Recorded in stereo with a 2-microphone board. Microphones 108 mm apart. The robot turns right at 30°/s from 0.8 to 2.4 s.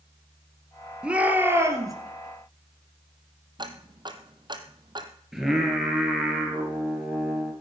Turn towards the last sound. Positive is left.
turn(degrees=-5)  # may be behind; listen again after turning